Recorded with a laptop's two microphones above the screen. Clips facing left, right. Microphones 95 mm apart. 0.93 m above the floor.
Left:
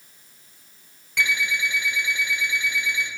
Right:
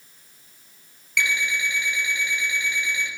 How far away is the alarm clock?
About 1.6 m.